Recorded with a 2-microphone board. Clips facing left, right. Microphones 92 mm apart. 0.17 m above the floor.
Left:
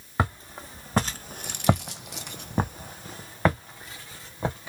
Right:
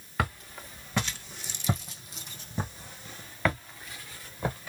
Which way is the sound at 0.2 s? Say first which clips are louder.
Left 4 dB; 25° left (ahead or behind).